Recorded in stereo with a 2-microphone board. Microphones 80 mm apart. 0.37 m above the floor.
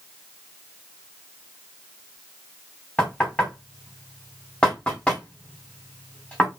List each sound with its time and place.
3.0 s knocking: 10° left (ahead or behind), 2 m